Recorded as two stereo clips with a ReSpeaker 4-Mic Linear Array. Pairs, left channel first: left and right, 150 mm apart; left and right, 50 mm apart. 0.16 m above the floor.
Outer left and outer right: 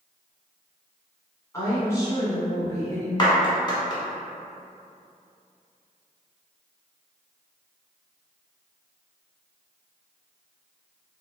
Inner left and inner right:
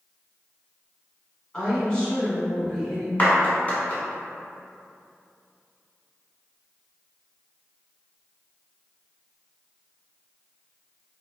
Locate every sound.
1.5 s a woman speaking: 20° left (ahead or behind), 1.2 m
3.2 s a clap: 30° left (ahead or behind), 1.0 m